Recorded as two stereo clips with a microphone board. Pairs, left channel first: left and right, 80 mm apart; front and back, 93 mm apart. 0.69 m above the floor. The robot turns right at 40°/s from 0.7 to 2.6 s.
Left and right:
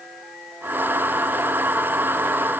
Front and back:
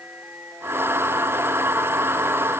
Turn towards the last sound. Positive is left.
No sound to turn to.